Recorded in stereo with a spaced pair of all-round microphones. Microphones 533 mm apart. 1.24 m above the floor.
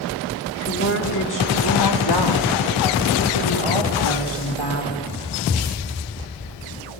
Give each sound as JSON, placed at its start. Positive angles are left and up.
{"t": 0.7, "sound": "a woman speaking", "side_deg": 25, "distance_m": 3.0}